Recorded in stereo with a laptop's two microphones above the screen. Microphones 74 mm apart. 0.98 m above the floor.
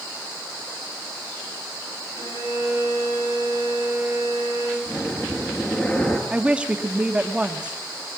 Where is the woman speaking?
15° right (ahead or behind), 1.6 m.